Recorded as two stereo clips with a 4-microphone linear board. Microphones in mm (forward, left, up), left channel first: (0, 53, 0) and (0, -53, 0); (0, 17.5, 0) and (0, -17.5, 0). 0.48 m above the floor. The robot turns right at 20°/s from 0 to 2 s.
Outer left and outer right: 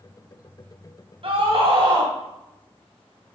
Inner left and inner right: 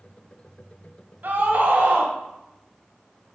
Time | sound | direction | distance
1.2 | a scream | 65° right (ahead or behind) | 2 m